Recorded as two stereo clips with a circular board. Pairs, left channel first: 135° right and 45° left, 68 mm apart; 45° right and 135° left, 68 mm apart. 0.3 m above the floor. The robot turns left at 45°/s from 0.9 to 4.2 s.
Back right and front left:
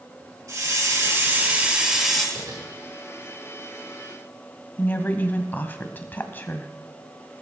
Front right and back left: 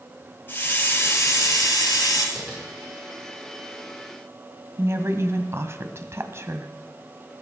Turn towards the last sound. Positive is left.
turn(degrees=170)